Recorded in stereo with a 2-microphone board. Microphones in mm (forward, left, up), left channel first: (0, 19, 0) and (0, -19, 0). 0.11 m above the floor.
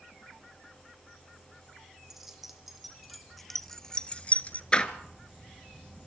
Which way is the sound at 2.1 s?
10° right (ahead or behind).